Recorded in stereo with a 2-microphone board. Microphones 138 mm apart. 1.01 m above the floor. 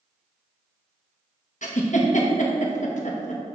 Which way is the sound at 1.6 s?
65° left (ahead or behind).